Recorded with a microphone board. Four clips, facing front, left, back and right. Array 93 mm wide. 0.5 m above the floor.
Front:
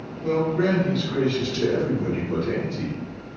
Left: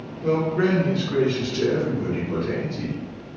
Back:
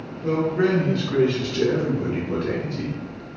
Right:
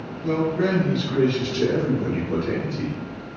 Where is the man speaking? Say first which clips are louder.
Left 1 dB, back 1 dB; 100° left, 0.8 m; by 3.0 s 165° right, 1.8 m.